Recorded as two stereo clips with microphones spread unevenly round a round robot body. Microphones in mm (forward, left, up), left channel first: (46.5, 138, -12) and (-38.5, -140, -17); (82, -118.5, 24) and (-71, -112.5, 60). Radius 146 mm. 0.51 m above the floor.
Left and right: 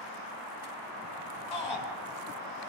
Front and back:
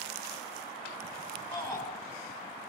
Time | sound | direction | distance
1.5 | a shout | 80° left | 6 m